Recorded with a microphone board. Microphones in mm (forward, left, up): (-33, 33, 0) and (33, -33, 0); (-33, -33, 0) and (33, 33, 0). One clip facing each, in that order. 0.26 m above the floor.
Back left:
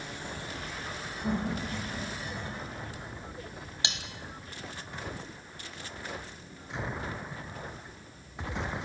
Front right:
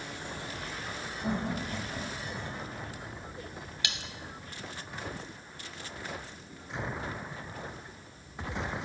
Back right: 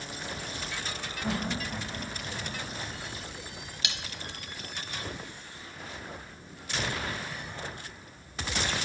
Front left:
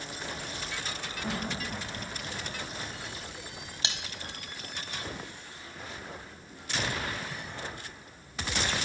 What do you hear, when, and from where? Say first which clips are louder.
1.2 s laughter: back left 1 dB, back right 3 dB; 55° right, 1.8 m
3.8 s cutlery clinking: back left 2 dB, front left 1 dB; 80° left, 0.7 m